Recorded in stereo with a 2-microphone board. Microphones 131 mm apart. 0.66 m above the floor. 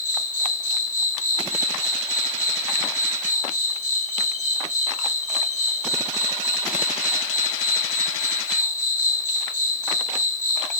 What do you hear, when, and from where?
0.0 s an insect: 75° left (ahead or behind), 2 m